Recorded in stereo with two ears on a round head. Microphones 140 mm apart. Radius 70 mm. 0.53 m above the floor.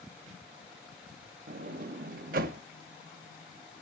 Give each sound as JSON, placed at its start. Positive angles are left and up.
{"t": 1.5, "sound": "a sliding door", "side_deg": -65, "distance_m": 0.5}